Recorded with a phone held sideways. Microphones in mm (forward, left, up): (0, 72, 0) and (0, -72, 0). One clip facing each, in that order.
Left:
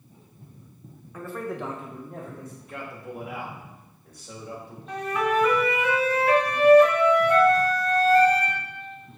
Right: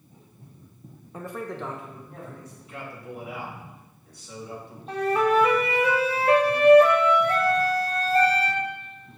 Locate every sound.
1.1 s a man speaking: 30° right (ahead or behind), 0.5 m; by 2.5 s 55° left (ahead or behind), 1.1 m
2.6 s a man speaking: 50° left (ahead or behind), 1.8 m
4.9 s a flute: 30° right (ahead or behind), 0.6 m